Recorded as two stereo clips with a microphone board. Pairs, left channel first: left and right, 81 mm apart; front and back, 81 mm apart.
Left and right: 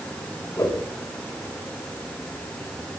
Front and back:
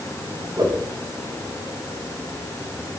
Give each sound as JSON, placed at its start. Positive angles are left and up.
{"t": 0.6, "sound": "a whoosh", "azimuth_deg": 140, "distance_m": 6.0}